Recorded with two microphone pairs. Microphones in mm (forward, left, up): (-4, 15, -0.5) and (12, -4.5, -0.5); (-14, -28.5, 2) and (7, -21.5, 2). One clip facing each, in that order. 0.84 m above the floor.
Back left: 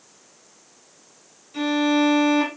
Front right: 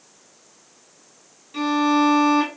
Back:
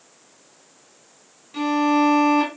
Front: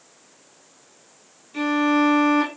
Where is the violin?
115° right, 1.4 m.